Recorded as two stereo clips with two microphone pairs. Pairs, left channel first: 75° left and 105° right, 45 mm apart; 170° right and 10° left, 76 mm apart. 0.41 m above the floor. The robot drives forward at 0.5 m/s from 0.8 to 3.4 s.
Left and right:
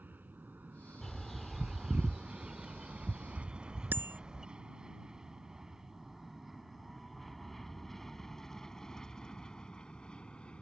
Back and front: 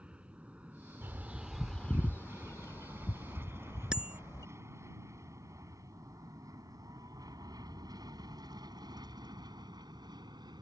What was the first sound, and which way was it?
An aircraft, 65° right.